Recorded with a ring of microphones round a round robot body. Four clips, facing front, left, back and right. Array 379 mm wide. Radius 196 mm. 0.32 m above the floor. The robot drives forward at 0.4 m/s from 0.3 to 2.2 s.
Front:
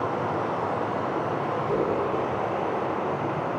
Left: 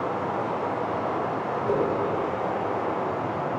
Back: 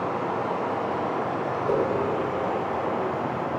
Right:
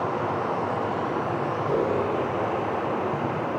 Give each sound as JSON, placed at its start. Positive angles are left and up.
{"t": 0.0, "sound": "running water", "azimuth_deg": -75, "distance_m": 1.2}
{"t": 1.6, "sound": "a whoosh", "azimuth_deg": 155, "distance_m": 0.8}